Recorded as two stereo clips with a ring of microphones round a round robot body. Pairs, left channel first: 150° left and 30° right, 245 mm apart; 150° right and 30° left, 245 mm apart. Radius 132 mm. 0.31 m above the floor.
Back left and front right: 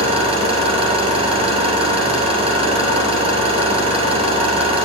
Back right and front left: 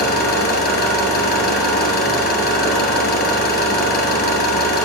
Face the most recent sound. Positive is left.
turn(degrees=-100)